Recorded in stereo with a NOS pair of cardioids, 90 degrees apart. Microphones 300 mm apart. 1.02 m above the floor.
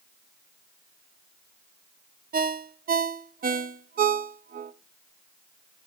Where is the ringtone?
30° right, 0.6 m.